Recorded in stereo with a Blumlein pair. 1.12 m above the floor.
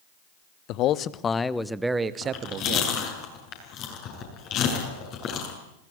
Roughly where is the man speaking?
Ahead left.